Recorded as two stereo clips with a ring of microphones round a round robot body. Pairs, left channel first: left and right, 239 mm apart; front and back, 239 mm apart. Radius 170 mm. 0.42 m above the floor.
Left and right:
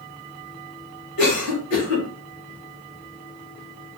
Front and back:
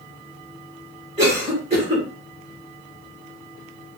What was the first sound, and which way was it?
A cough, 120° left.